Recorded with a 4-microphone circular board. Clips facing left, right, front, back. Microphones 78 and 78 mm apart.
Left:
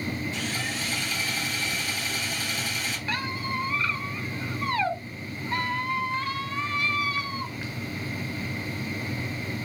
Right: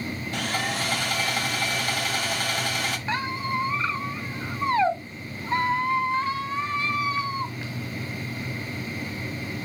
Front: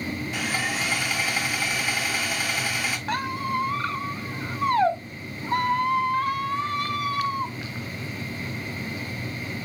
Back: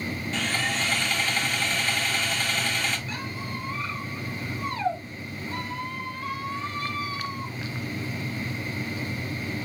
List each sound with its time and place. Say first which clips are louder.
0.3 s sawing: right 4 dB, back 1 dB; 80° right, 1.7 m
3.1 s a squeak: right 3 dB, front 8 dB; 25° right, 1.4 m